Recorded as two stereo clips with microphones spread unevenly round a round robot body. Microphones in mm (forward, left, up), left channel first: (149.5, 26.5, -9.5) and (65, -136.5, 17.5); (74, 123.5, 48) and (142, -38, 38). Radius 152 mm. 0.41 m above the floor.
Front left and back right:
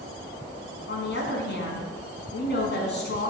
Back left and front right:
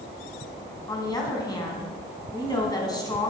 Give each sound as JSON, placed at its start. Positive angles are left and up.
{"t": 0.9, "sound": "a woman speaking", "azimuth_deg": 45, "distance_m": 3.5}